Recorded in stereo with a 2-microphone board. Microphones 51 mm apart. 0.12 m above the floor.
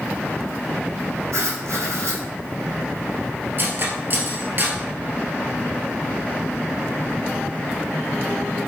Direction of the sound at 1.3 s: 75° right (ahead or behind).